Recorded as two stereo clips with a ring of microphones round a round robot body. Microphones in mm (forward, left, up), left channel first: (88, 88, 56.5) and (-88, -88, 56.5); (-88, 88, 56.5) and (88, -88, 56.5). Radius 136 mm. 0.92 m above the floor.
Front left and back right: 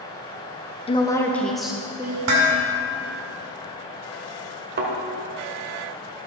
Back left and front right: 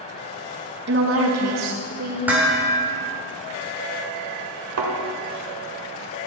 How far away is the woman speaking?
About 1.1 m.